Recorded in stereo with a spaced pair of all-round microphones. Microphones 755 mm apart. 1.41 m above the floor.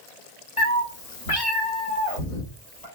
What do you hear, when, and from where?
0.6 s a cat meowing: 10° left (ahead or behind), 1.1 m; by 2.9 s 55° left (ahead or behind), 1.6 m